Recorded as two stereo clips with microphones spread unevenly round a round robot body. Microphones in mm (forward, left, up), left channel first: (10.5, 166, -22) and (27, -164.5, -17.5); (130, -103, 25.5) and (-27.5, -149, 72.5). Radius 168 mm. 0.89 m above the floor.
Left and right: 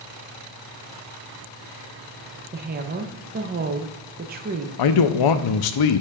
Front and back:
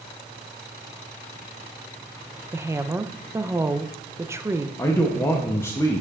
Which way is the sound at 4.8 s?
85° left.